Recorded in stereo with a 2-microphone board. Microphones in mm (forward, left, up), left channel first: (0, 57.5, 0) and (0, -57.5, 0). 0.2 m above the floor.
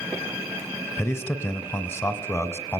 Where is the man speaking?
20° left (ahead or behind), 1.6 m.